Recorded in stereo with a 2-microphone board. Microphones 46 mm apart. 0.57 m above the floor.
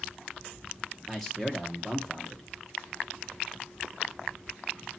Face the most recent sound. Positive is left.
turn(degrees=10)  # may be behind; listen again after turning